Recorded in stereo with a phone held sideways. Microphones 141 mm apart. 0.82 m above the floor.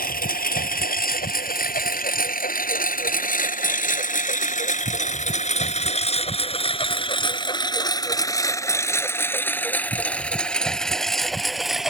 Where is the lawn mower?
85° left; by 11.9 s 5° right (ahead or behind).